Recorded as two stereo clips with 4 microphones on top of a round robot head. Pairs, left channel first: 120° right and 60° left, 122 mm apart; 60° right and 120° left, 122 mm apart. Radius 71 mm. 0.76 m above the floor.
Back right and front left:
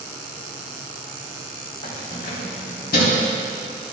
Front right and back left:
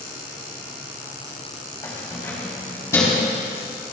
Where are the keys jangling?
120° right, 3 m; by 3.3 s 125° right, 4 m.